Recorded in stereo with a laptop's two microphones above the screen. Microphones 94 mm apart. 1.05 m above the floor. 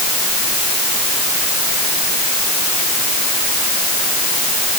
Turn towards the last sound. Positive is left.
No sound to turn to.